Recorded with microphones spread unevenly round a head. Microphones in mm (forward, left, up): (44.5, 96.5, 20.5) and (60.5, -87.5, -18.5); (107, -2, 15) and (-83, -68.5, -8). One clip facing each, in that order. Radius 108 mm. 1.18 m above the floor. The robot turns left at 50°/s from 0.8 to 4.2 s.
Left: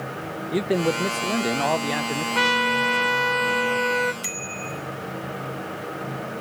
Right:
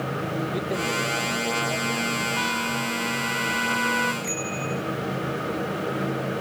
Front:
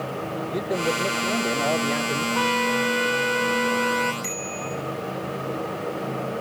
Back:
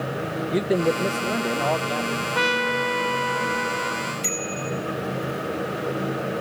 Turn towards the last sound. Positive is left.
turn(degrees=115)